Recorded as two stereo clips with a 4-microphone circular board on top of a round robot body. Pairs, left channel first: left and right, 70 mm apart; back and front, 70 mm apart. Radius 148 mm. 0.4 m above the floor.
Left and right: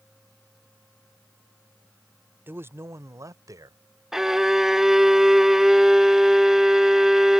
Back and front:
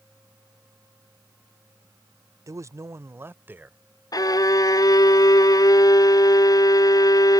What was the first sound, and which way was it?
A man speaking, 35° right.